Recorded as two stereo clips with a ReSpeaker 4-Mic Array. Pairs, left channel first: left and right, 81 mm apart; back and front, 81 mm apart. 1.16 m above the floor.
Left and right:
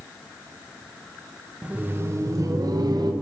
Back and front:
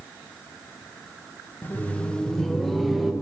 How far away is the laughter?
About 0.5 m.